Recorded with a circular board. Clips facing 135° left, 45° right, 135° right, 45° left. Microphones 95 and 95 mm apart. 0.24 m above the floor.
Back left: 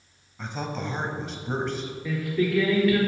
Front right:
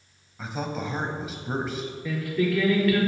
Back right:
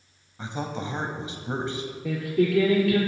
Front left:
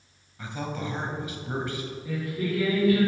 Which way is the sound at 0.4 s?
125° right.